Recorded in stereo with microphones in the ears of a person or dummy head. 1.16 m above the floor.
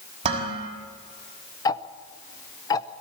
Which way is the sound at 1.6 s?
20° left (ahead or behind).